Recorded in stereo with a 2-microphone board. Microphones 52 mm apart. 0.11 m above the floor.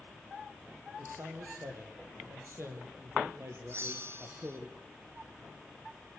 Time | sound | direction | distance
1.0 | a man speaking | 65° right (ahead or behind) | 4.5 m
3.7 | a bell | 50° right (ahead or behind) | 0.8 m